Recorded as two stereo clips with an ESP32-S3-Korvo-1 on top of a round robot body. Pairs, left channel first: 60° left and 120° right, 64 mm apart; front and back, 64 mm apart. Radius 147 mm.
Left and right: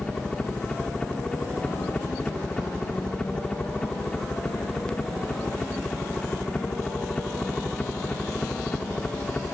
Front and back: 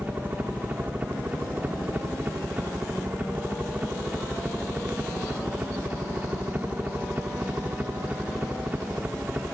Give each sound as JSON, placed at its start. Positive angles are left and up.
{"t": 0.0, "sound": "a helicopter", "azimuth_deg": 130}